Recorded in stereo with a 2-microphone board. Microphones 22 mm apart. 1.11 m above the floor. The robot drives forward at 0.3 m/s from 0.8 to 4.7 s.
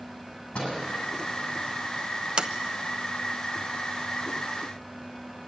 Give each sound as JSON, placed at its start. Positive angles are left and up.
{"t": 0.6, "sound": "a door slam", "side_deg": 60, "distance_m": 7.0}
{"t": 2.4, "sound": "a sliding door", "side_deg": -40, "distance_m": 0.7}